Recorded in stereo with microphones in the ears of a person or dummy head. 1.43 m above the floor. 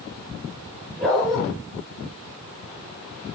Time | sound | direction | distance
1.0 | a dog barking | 5° left (ahead or behind) | 8 m